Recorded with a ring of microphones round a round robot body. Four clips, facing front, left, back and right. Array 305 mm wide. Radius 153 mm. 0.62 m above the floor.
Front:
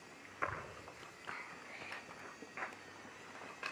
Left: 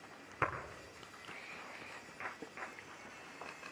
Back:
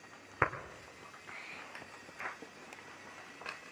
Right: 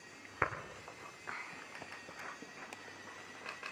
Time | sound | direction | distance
0.4 | a clap | 170° right | 1.7 m